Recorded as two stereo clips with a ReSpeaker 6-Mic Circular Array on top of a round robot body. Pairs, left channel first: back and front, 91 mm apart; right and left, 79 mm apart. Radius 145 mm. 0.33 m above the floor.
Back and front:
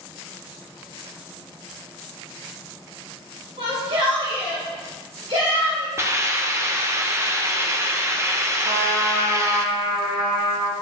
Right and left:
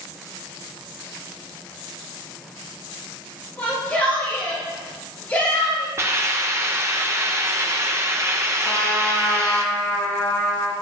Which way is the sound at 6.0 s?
50° left.